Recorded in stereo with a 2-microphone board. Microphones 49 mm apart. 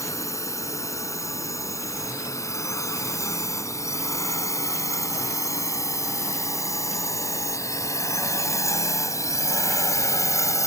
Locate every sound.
0.0 s a drone: 75° left (ahead or behind)